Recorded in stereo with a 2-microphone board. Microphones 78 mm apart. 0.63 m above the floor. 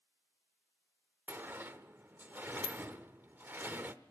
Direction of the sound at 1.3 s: 25° right (ahead or behind).